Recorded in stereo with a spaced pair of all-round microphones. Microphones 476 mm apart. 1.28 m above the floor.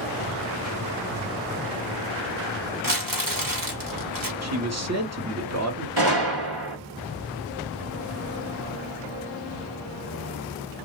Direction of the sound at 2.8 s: 45° right (ahead or behind).